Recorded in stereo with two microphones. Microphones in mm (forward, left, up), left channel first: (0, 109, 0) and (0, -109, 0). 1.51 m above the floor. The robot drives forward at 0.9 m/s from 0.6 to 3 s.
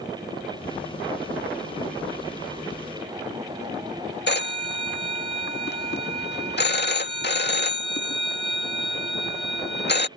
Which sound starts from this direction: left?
A phone ringing, at 4.3 s.